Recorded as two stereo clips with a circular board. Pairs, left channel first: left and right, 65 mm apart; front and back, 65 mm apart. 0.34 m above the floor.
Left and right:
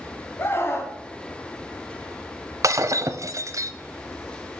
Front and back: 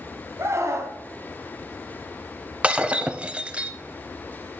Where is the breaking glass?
110° right, 0.8 m.